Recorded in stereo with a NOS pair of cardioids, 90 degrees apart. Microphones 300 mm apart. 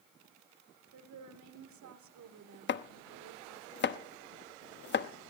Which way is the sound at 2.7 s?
40° left.